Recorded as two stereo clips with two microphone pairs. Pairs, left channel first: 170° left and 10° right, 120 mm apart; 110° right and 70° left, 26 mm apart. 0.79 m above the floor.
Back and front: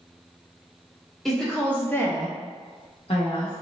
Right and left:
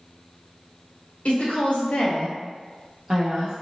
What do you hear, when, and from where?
1.2 s a woman speaking: 105° right, 1.4 m; by 3.6 s 130° left, 1.1 m